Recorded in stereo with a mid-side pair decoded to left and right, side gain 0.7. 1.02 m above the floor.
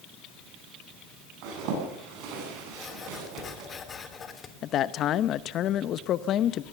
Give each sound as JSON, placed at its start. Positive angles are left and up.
{"t": 1.4, "sound": "a zipper", "azimuth_deg": -65, "distance_m": 10.0}
{"t": 2.7, "sound": "writing", "azimuth_deg": 30, "distance_m": 3.0}
{"t": 4.6, "sound": "a man speaking", "azimuth_deg": 45, "distance_m": 0.8}